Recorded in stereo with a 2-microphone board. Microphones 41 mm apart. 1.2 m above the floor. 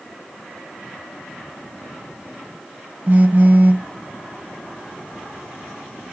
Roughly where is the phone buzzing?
Right.